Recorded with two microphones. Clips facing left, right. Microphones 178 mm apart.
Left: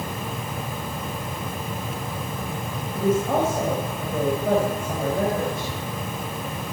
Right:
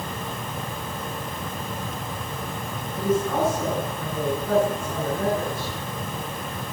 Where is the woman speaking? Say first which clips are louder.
Left 2 dB; 65° left (ahead or behind), 3.5 m.